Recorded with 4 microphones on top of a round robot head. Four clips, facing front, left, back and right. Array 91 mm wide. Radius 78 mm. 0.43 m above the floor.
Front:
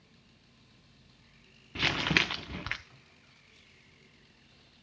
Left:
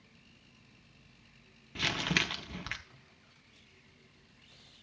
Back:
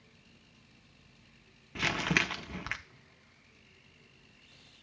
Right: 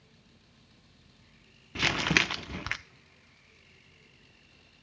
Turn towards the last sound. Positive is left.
turn(degrees=-85)